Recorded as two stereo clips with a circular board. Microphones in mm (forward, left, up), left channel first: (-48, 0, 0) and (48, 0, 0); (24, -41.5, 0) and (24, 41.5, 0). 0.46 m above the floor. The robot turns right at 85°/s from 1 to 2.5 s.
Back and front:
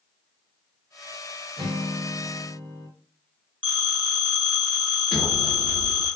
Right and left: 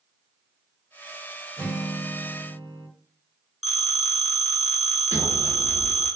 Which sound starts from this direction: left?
A sliding door, at 5.1 s.